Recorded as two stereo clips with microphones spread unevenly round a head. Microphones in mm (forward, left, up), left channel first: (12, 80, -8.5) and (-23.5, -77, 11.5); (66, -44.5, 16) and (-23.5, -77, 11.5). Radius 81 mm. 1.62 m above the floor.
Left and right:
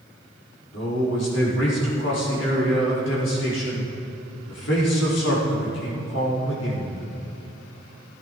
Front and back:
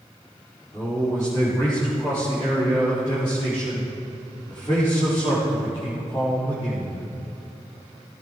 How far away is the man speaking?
About 5 m.